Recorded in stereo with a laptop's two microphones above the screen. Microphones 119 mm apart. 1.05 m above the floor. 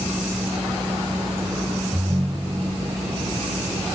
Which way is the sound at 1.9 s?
20° right (ahead or behind).